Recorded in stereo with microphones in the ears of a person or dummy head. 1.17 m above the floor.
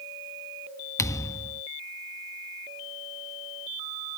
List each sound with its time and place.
1.0 s a thud: 15° left (ahead or behind)